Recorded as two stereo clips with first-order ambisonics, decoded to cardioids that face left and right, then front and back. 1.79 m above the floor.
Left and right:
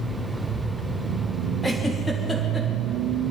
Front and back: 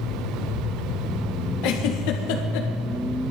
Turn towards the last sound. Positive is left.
turn(degrees=5)